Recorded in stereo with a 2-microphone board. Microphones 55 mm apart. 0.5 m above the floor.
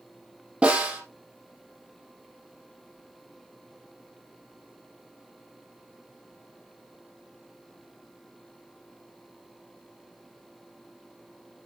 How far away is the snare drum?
About 3.5 m.